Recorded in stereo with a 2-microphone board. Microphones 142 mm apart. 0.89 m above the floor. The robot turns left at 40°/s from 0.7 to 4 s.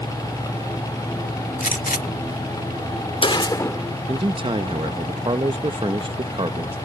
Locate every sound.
1.6 s a gunshot: 75° left (ahead or behind); by 3.8 s 15° left (ahead or behind)
4.1 s a man speaking: 35° right (ahead or behind)